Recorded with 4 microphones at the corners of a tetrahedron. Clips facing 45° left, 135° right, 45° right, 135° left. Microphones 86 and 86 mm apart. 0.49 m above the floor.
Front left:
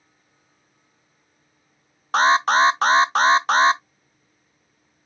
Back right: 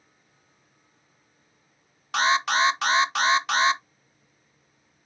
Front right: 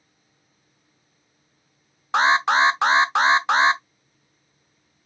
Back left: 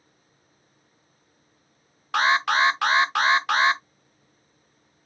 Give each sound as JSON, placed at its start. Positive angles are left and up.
{"t": 2.1, "sound": "an alarm", "azimuth_deg": 10, "distance_m": 0.6}